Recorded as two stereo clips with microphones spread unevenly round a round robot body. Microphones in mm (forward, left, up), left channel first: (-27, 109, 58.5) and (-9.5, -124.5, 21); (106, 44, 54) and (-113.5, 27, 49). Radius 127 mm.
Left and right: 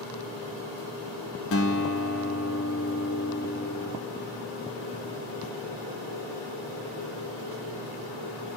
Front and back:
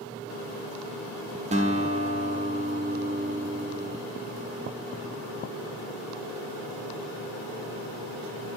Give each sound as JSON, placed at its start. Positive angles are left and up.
{"t": 1.5, "sound": "a guitar", "azimuth_deg": 125, "distance_m": 2.0}